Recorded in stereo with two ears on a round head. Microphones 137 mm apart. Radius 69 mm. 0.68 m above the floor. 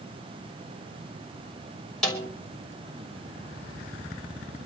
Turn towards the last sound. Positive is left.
turn(degrees=5)  # may be behind; listen again after turning